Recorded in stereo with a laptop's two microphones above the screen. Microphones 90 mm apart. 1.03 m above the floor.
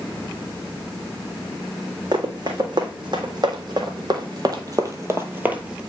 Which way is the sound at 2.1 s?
60° right (ahead or behind).